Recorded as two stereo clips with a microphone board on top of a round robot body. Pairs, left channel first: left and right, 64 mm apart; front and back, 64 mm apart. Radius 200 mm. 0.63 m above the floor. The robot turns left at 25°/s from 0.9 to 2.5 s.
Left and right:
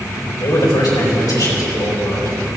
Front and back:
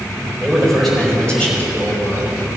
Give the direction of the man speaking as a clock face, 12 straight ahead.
9 o'clock.